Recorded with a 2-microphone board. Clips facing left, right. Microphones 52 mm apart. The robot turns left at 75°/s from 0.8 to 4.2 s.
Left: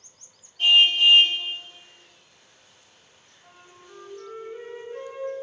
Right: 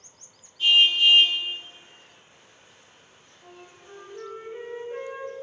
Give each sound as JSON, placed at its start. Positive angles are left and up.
{"t": 0.6, "sound": "a car horn", "azimuth_deg": 100, "distance_m": 2.0}
{"t": 3.4, "sound": "a flute", "azimuth_deg": -85, "distance_m": 4.0}